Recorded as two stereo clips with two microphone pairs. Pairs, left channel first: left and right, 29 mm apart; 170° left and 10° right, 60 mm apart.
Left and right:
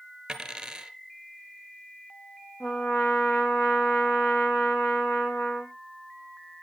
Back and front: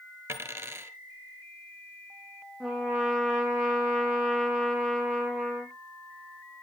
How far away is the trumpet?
About 1.8 m.